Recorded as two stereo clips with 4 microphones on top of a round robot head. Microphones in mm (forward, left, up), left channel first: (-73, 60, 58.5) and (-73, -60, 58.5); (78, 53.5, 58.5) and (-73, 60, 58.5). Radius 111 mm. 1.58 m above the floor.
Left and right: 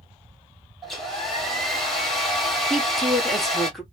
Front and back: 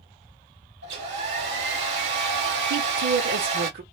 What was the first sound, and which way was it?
A hair dryer, straight behind.